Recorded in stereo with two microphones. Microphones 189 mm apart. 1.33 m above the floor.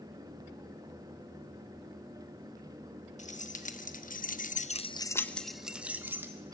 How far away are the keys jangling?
About 1.5 m.